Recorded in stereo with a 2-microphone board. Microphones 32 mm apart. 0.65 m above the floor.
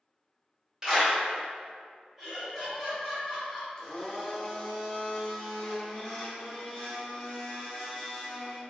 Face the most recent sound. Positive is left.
turn(degrees=20)  # may be behind; listen again after turning